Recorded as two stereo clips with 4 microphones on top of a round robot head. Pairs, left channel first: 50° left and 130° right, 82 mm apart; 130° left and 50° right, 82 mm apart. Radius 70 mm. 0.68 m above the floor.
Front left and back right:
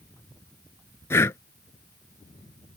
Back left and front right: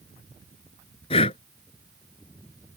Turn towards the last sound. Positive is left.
turn(degrees=110)